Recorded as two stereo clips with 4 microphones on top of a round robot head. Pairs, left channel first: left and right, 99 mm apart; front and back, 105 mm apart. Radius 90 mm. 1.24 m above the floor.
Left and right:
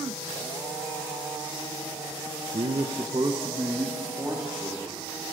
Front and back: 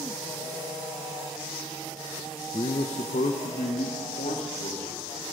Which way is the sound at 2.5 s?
50° right.